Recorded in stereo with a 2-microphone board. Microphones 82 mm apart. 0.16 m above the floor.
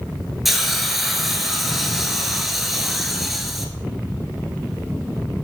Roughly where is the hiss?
Centre.